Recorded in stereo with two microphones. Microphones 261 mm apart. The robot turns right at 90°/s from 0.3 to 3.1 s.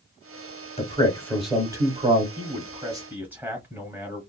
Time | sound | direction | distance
0.8 | a man speaking | 25° left (ahead or behind) | 1.2 m
2.4 | a man speaking | 30° right (ahead or behind) | 1.4 m